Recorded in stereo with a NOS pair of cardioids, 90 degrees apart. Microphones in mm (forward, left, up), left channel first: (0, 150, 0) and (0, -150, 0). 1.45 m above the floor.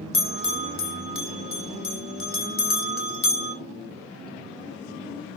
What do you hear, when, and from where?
0.1 s a bell: 45° left, 3 m